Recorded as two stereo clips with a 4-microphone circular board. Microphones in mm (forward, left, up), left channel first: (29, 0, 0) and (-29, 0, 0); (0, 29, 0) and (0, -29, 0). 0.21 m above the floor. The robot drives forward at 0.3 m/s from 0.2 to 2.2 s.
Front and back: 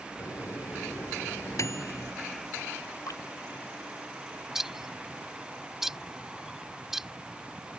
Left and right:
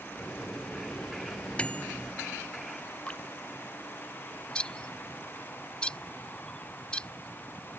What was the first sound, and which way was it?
A microwave, 20° left.